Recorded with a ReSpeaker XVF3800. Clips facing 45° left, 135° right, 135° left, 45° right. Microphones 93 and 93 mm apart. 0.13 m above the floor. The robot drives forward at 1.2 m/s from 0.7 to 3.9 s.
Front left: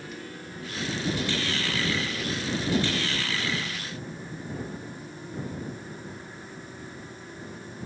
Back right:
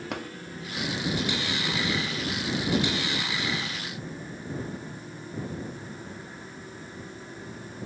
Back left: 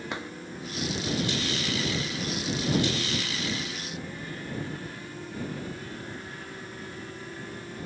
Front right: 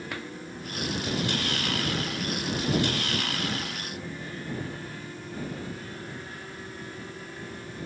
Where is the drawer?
155° right.